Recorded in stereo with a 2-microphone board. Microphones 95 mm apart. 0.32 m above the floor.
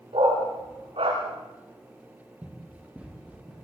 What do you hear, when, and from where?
0.1 s a dog barking: 75° right (ahead or behind), 8 m; by 1.2 s 80° right, 8 m
2.4 s running footsteps: 15° right (ahead or behind), 4.5 m; by 3.7 s 5° right (ahead or behind), 6 m